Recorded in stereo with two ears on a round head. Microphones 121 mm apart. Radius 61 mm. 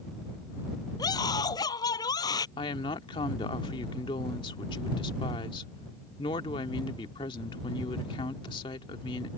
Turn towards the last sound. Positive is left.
turn(degrees=40)  # may be behind; listen again after turning